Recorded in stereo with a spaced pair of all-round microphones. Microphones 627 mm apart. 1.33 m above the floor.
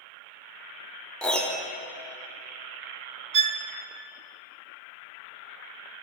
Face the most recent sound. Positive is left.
turn(degrees=-60)  # may be behind; listen again after turning